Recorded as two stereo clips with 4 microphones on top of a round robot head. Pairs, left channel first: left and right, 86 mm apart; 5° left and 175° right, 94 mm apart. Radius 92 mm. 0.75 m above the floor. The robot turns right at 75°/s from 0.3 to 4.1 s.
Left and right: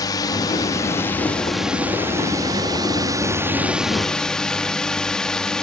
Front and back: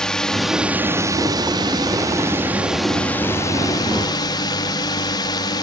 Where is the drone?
85° left; by 5.6 s 10° left.